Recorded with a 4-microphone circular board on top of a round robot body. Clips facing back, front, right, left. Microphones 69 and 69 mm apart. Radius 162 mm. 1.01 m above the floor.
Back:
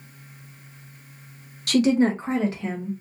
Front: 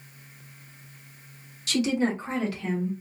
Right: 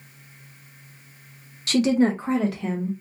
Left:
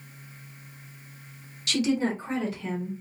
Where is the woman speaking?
145° right, 0.6 m; by 2.9 s 110° right, 1.2 m.